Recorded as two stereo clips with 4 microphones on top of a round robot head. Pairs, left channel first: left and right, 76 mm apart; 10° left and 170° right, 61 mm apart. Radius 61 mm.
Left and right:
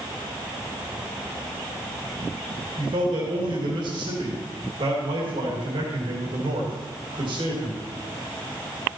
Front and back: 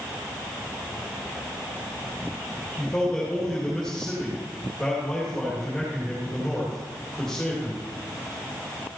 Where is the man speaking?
75° right, 3 m.